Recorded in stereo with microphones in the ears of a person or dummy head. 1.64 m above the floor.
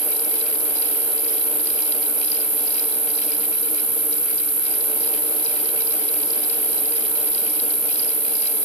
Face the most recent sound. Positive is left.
turn(degrees=-5)  # may be behind; listen again after turning